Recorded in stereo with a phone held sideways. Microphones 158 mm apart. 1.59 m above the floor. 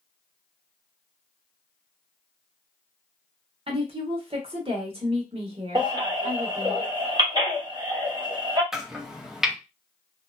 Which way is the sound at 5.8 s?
30° right (ahead or behind).